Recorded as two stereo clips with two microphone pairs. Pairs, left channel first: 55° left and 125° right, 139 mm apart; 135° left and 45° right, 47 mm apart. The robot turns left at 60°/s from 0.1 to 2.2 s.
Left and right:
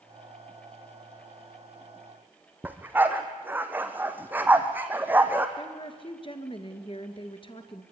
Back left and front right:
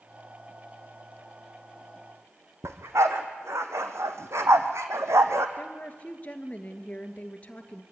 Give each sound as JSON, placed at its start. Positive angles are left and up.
{"t": 2.6, "sound": "a dog barking", "azimuth_deg": -45, "distance_m": 2.5}
{"t": 5.6, "sound": "a woman speaking", "azimuth_deg": 90, "distance_m": 2.5}